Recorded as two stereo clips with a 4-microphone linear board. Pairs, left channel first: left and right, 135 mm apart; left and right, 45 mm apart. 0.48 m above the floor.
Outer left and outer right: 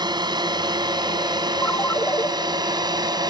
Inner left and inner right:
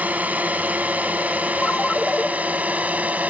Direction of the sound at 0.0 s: 35° right (ahead or behind).